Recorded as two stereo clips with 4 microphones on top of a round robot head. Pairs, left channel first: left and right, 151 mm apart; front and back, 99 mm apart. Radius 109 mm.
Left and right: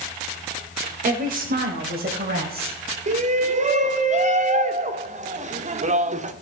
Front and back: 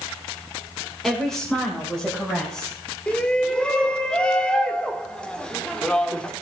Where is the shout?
80° right, 1.1 m.